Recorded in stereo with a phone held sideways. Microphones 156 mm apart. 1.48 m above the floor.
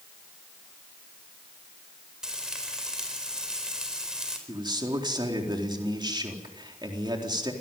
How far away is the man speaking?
About 4 m.